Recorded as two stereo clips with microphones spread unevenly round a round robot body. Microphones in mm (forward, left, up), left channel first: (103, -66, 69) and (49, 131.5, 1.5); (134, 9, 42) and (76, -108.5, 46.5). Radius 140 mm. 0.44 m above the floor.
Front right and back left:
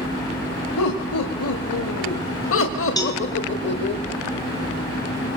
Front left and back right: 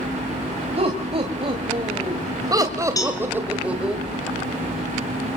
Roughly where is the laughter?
Right.